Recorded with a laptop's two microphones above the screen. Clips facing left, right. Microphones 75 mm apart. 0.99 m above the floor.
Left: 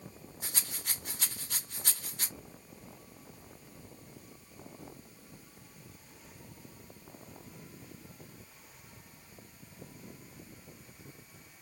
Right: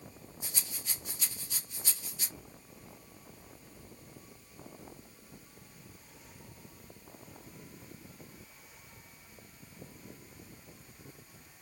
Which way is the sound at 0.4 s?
60° left (ahead or behind).